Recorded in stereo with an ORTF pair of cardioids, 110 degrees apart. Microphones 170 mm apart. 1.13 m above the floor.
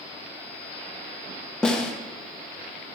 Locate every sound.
1.6 s a snare drum: 5° left, 1.5 m